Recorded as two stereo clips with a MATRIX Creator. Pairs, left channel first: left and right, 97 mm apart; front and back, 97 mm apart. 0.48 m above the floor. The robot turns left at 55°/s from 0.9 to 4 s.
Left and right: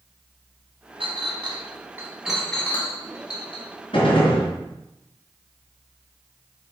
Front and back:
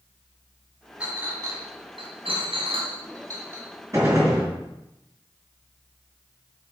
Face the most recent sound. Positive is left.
turn(degrees=120)